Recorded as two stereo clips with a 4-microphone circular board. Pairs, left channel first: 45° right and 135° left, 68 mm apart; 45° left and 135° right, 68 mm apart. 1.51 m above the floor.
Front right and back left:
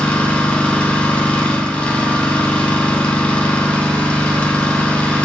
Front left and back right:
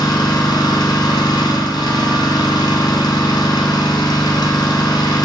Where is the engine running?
30° left, 0.9 m.